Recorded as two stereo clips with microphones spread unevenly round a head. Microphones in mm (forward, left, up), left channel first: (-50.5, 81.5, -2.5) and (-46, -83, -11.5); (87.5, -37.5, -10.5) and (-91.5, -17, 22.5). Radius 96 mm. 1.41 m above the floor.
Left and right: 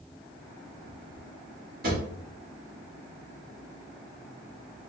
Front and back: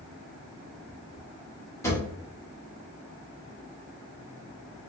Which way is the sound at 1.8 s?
85° right.